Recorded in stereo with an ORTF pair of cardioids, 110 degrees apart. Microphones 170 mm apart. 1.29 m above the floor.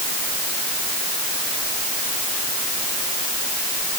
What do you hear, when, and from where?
Only background noise.